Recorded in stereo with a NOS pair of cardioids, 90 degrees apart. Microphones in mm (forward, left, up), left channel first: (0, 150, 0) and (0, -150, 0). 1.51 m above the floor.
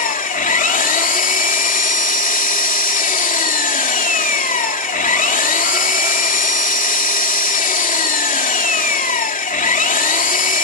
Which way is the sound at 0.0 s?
25° left.